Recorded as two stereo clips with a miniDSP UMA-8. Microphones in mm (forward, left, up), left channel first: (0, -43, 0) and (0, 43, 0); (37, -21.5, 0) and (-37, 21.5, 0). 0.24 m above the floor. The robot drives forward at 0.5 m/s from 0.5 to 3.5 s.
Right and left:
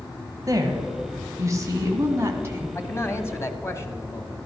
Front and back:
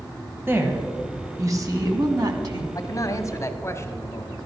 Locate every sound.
0.5 s a woman speaking: 105° left, 1.7 m; by 2.6 s 140° left, 2 m
2.8 s a man speaking: 40° right, 1.4 m; by 4.4 s 60° right, 1.3 m